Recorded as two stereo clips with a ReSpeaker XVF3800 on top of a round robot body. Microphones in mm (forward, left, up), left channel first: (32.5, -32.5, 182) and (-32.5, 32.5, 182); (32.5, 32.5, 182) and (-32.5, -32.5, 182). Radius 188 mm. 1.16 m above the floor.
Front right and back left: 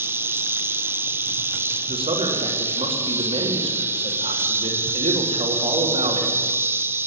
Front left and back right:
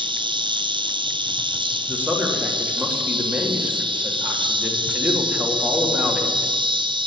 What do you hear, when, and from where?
0.0 s an insect: 160° right, 1.2 m
1.9 s a man speaking: 150° left, 3.5 m